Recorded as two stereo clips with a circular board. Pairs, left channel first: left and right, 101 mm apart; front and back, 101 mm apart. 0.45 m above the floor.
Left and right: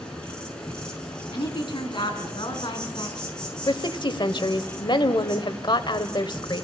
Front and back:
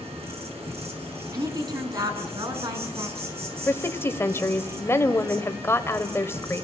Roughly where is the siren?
No siren in this recording.